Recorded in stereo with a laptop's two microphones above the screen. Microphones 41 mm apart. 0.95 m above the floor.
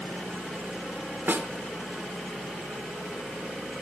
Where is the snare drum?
55° right (ahead or behind), 1.7 m.